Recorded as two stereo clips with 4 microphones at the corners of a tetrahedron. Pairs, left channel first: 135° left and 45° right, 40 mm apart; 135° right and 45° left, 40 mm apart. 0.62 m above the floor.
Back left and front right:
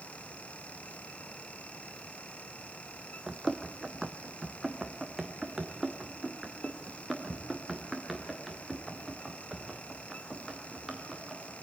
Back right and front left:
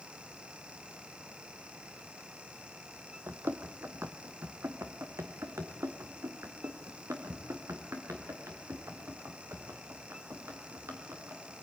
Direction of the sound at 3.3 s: 35° left.